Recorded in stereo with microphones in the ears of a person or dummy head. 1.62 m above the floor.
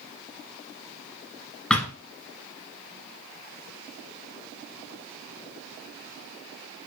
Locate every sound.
1.7 s a thud: 5° left (ahead or behind), 1.6 m